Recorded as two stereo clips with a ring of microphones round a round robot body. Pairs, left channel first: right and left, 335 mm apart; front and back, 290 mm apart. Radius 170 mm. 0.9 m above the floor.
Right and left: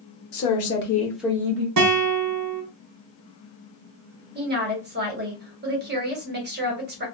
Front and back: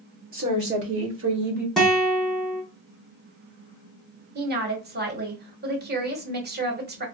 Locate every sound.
0.3 s a woman speaking: 120° right, 1.6 m; by 1.7 s 125° left, 1.1 m
1.8 s a guitar: 90° left, 1.0 m
4.3 s a woman speaking: 140° left, 1.1 m